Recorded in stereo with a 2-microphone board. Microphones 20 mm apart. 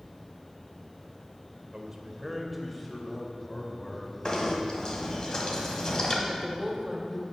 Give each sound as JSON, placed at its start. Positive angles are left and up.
{"t": 1.7, "sound": "a man speaking", "side_deg": -35, "distance_m": 1.1}
{"t": 4.2, "sound": "knocking", "side_deg": 35, "distance_m": 1.5}
{"t": 6.3, "sound": "a woman speaking", "side_deg": -25, "distance_m": 1.4}